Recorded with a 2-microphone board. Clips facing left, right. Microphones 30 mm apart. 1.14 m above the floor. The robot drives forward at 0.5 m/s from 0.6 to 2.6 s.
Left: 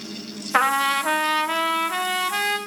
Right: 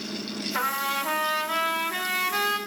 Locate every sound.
0.5 s a trumpet: 55° left (ahead or behind), 0.8 m; by 2.6 s 25° left (ahead or behind), 1.6 m